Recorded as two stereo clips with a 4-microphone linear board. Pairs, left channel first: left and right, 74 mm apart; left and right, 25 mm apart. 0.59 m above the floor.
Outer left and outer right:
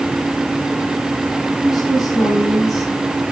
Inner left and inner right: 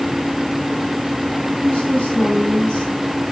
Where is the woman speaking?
65° left (ahead or behind), 5 m; by 3.0 s 45° left (ahead or behind), 4.5 m.